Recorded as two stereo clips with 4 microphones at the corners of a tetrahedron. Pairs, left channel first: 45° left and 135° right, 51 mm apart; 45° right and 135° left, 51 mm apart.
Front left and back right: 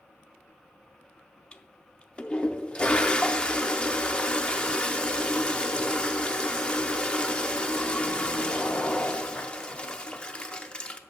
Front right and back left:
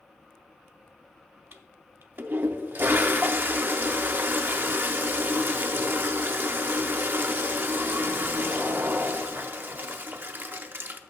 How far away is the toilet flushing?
About 0.6 m.